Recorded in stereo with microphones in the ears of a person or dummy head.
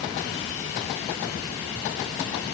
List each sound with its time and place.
Only background noise.